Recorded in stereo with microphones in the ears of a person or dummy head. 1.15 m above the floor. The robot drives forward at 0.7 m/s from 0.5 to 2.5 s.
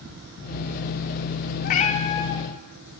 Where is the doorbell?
No doorbell in this recording.